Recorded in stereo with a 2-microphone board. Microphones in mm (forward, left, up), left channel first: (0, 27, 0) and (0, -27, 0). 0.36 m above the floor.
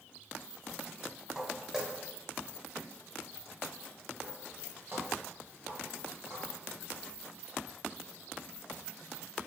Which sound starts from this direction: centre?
Footsteps, at 1.4 s.